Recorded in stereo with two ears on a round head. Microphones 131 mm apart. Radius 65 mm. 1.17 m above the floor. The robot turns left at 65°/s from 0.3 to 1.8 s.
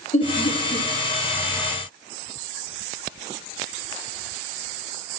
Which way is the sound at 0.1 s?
45° left (ahead or behind).